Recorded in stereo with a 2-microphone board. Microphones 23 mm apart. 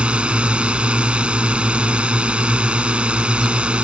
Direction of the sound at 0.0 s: 60° right (ahead or behind).